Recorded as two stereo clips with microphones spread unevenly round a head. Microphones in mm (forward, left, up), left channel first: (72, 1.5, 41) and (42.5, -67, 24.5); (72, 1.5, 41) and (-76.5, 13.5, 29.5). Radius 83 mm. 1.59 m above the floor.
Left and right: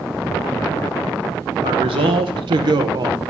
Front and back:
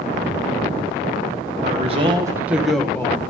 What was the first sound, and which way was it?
A man speaking, 140° right.